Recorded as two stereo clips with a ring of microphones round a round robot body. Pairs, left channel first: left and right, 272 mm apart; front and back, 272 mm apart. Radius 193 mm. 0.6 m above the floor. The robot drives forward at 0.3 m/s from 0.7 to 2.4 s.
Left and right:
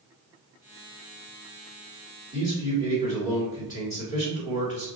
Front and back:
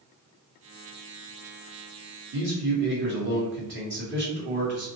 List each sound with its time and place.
2.3 s a man speaking: 160° right, 1.3 m; by 4.9 s 165° right, 1.3 m